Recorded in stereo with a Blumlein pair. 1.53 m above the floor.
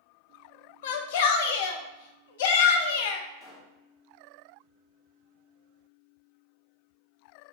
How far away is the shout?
About 0.6 m.